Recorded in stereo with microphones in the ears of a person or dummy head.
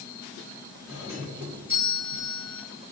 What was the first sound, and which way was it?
A doorbell, 15° right (ahead or behind).